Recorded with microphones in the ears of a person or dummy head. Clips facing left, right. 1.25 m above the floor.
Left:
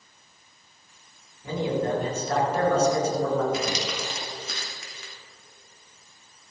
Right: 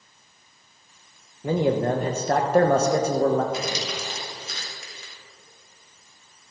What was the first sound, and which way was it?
A man speaking, 40° right (ahead or behind).